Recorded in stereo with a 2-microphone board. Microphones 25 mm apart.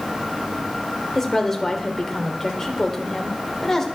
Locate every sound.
1.1 s a woman speaking: 15° left (ahead or behind), 1.3 m